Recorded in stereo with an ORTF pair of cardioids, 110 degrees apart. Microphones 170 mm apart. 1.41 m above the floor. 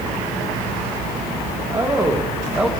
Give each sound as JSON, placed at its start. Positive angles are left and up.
{"t": 1.7, "sound": "a man speaking", "azimuth_deg": -20, "distance_m": 1.7}